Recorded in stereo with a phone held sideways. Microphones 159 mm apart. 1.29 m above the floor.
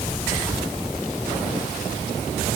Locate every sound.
Only background noise.